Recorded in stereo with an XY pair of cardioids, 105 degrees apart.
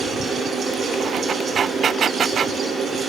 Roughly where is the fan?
Ahead right.